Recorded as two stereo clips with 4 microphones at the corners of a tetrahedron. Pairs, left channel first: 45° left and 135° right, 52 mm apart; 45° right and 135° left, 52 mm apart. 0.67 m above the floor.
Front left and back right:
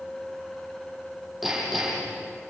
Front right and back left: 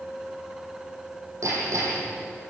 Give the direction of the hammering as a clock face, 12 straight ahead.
7 o'clock.